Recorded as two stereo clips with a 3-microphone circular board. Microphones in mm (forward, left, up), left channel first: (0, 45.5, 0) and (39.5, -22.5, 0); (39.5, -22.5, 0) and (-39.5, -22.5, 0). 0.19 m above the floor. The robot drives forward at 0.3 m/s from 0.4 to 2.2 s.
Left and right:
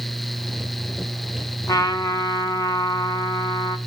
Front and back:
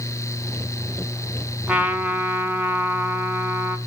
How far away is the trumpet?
About 1.1 m.